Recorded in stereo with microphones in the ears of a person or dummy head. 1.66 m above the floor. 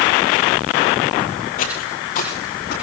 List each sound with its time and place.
1.6 s footsteps: 35° left (ahead or behind), 2.5 m; by 2.7 s 45° left (ahead or behind), 4 m